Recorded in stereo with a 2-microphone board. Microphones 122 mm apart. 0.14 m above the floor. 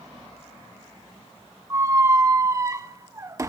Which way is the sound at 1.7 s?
25° right (ahead or behind).